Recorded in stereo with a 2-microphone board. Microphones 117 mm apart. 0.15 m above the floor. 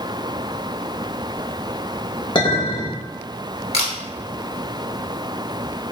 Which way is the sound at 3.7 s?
65° left (ahead or behind).